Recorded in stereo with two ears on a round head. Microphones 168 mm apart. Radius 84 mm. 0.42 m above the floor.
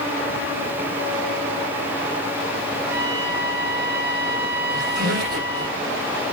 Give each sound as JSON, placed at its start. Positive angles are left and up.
{"t": 2.9, "sound": "a trumpet", "side_deg": -70, "distance_m": 2.5}
{"t": 4.7, "sound": "a squeak", "side_deg": -45, "distance_m": 7.5}